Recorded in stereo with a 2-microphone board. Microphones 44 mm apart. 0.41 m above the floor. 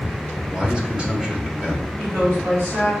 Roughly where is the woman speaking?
Right.